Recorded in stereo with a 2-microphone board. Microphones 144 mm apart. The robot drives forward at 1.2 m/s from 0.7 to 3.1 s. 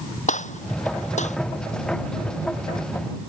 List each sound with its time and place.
0.3 s a gunshot: 60° left (ahead or behind)